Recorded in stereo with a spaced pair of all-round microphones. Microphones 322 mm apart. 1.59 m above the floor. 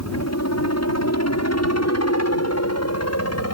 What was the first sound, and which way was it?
A helicopter, 55° left (ahead or behind).